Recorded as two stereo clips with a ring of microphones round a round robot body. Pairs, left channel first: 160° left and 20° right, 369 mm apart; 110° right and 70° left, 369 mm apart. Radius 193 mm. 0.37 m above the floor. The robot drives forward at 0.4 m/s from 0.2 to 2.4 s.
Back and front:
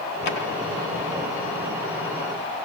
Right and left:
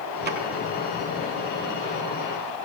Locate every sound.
0.2 s a drawer: 130° left, 3 m; by 0.4 s 135° left, 3 m